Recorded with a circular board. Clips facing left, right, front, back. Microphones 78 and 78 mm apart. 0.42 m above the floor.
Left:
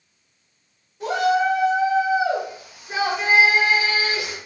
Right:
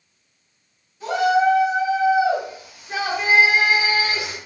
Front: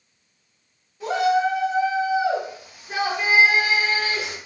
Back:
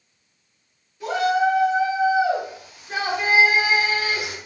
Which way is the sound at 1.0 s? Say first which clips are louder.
Right 2 dB, even; 60° left.